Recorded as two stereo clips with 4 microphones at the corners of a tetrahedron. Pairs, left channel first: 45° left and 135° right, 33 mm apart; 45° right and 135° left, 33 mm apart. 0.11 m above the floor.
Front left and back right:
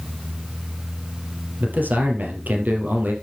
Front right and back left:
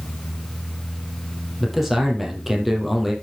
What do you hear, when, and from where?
1.6 s a man speaking: 145° right, 2.5 m